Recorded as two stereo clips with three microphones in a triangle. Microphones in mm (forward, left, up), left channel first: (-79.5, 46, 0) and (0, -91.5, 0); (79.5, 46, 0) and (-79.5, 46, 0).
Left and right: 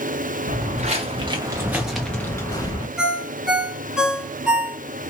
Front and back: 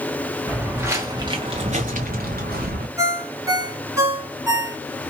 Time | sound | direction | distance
0.5 | footsteps | 95° right | 0.9 m
3.0 | a ringtone | 140° right | 0.8 m